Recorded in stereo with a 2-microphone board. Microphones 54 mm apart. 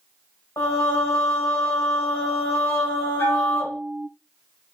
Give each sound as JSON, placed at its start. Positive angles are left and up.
{"t": 0.6, "sound": "singing", "side_deg": 80, "distance_m": 1.6}
{"t": 3.2, "sound": "a bell", "side_deg": 45, "distance_m": 1.8}